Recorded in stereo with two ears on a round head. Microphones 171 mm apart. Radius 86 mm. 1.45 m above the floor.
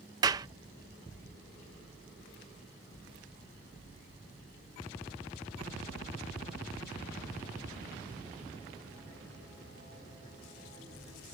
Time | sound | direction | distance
0.2 | a clap | 20° right (ahead or behind) | ?